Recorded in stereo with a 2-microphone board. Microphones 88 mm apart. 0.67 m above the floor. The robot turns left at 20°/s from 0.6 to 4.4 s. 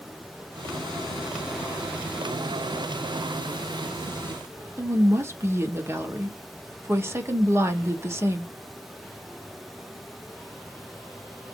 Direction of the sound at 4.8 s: 30° right (ahead or behind).